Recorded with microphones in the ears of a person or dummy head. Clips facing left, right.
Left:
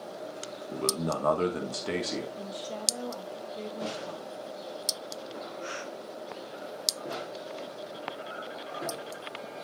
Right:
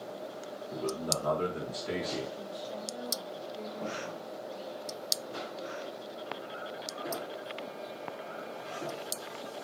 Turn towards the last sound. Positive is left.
turn(degrees=65)  # may be behind; listen again after turning